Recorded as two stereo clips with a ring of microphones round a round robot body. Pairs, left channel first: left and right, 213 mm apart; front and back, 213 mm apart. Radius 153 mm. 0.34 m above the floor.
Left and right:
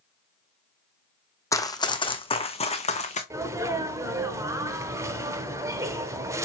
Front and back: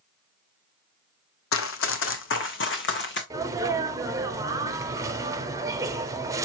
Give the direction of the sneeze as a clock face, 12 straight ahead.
5 o'clock.